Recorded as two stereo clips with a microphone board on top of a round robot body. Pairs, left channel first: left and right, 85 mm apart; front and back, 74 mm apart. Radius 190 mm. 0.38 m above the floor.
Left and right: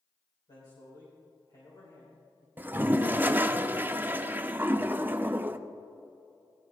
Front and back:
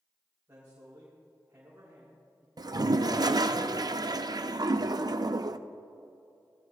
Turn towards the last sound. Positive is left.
turn(degrees=-155)